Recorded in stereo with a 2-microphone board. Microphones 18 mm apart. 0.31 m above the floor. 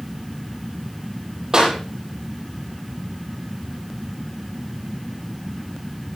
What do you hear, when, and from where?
1.5 s a clap: 45° right (ahead or behind), 10 m